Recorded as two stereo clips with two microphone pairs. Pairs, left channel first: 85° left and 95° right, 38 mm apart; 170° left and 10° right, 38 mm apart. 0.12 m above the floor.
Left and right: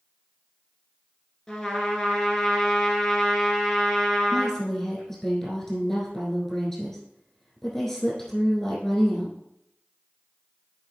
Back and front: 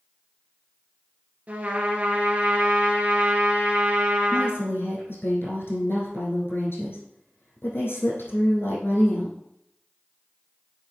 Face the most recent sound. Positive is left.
turn(degrees=165)